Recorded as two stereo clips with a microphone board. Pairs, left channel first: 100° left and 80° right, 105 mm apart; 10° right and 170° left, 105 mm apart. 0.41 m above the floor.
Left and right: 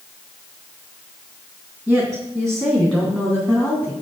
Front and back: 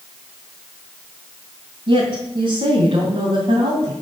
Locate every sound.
1.9 s a woman speaking: 165° right, 3 m; by 3.9 s 175° left, 3 m